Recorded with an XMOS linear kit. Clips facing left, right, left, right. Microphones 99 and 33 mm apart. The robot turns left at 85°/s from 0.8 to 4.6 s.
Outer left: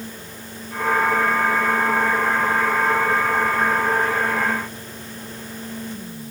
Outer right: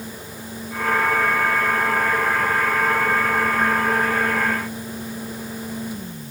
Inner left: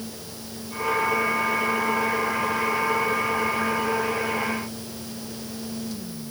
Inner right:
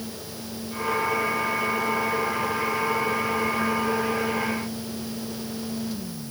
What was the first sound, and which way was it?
Only background noise.